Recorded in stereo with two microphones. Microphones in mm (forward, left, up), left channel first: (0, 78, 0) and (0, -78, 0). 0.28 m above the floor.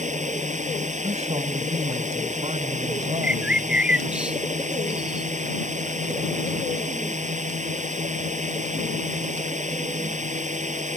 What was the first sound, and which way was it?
A drone, 50° right (ahead or behind).